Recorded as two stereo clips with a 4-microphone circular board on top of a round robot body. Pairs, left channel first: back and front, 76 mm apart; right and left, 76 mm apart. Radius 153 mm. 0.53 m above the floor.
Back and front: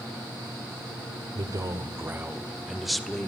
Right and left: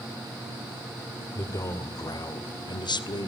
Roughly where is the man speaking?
Ahead right.